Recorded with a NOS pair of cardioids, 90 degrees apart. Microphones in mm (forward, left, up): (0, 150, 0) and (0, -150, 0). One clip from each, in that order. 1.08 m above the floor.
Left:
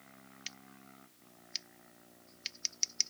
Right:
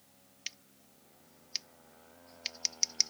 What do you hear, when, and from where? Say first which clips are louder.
0.5 s scissors: right 3 dB; 15° right